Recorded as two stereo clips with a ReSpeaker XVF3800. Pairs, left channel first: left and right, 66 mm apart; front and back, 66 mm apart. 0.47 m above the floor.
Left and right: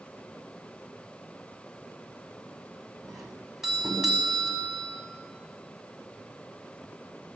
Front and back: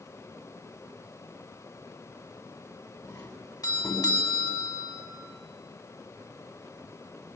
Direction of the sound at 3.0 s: 10° right.